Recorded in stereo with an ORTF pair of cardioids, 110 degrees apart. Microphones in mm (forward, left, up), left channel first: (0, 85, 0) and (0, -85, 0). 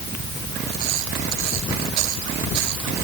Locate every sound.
Only background noise.